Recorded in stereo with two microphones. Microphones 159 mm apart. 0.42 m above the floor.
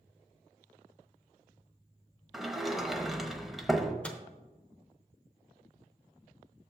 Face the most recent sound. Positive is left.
turn(degrees=10)  # may be behind; listen again after turning